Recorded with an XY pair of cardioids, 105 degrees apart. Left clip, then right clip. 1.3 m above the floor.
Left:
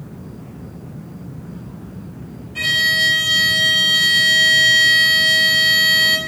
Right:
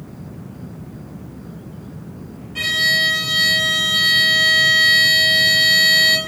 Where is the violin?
5° right, 1.9 m.